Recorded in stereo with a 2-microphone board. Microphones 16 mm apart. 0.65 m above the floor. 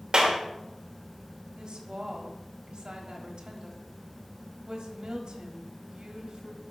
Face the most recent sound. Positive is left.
turn(degrees=-55)  # may be behind; listen again after turning